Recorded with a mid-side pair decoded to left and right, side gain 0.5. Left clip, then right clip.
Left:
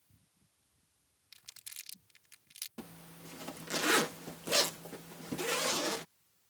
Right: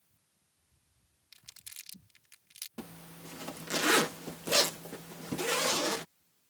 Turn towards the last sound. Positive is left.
turn(degrees=-20)